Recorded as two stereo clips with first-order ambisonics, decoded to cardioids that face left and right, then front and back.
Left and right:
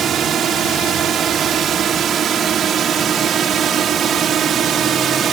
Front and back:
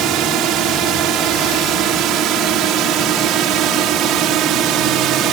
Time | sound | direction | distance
0.0 | a drone | 145° right | ?